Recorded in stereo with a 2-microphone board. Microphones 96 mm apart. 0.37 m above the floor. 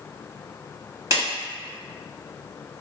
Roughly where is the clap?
Right.